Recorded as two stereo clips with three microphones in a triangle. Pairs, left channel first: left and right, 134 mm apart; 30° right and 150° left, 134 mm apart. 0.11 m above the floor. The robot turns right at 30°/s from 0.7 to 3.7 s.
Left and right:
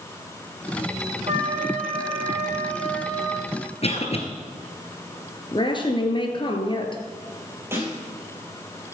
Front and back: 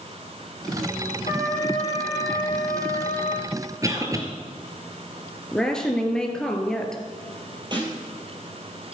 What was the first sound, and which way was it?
A trumpet, 50° right.